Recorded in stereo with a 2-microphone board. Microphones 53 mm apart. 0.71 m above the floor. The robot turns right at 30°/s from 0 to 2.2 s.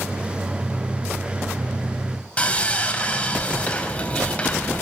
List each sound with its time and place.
2.4 s sawing: 25° left (ahead or behind), 3 m